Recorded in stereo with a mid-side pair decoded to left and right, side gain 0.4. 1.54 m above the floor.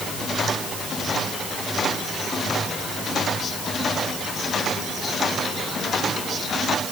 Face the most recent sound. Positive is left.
No sound to turn to.